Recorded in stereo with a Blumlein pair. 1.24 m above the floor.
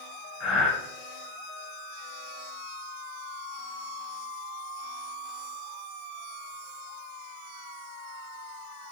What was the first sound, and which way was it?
Breathing, 30° left.